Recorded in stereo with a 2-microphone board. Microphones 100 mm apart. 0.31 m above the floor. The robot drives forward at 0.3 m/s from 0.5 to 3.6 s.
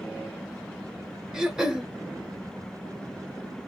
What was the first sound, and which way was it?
Throat clearing, 5° right (ahead or behind).